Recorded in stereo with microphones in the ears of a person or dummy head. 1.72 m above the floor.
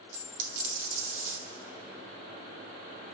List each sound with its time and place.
0.1 s a dropped coin: 45° right (ahead or behind), 2.5 m